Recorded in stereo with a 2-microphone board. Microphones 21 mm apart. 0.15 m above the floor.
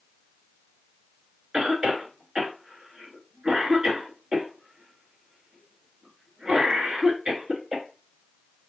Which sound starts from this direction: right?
A cough, at 1.5 s.